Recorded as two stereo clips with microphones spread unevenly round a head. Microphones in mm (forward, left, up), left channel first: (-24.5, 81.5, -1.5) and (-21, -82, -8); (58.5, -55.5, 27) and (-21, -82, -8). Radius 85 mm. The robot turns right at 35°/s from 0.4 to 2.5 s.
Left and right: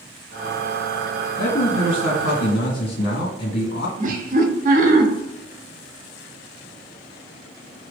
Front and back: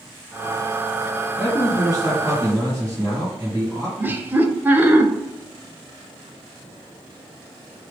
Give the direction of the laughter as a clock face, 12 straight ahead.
4 o'clock.